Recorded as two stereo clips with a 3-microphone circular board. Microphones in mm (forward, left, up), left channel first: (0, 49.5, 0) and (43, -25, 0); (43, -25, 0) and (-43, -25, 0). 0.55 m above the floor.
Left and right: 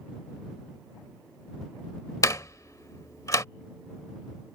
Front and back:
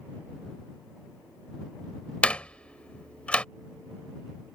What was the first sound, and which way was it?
A door slam, 75° left.